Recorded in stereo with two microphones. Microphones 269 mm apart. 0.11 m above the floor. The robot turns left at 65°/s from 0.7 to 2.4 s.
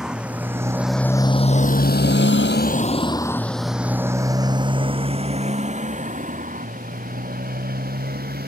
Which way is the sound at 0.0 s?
5° right (ahead or behind).